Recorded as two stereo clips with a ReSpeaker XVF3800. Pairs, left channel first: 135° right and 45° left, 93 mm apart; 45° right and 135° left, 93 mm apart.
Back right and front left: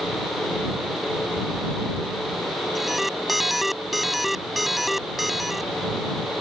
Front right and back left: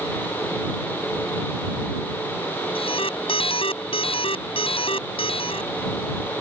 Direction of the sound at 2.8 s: 45° right.